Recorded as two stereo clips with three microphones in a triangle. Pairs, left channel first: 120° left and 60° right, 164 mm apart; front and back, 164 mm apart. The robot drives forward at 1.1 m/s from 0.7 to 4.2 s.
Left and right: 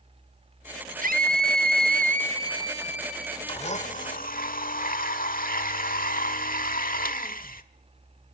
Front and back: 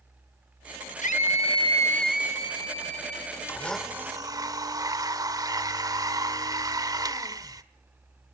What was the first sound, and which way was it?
A scream, 35° right.